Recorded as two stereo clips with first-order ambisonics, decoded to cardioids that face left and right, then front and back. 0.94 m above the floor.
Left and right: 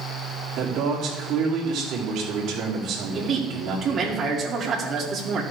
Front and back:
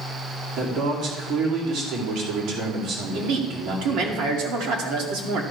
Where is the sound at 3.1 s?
155° right, 2 m.